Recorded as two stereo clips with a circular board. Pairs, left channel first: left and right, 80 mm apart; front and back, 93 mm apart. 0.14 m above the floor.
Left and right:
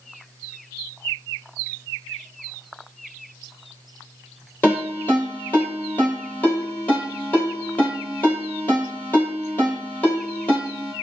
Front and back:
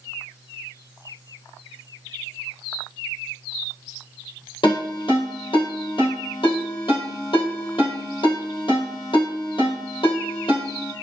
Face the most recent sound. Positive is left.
turn(degrees=20)